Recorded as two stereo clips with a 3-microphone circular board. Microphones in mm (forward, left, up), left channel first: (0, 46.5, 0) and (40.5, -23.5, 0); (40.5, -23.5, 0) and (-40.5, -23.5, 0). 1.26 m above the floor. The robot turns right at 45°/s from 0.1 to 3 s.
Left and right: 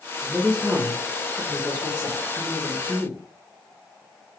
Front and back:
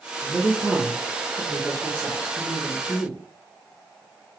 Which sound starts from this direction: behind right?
A man speaking, at 0.2 s.